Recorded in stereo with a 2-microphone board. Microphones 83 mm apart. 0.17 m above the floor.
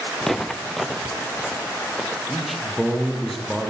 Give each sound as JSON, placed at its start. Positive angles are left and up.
{"t": 0.2, "sound": "footsteps", "side_deg": 5, "distance_m": 0.6}
{"t": 2.3, "sound": "a man speaking", "side_deg": 0, "distance_m": 5.5}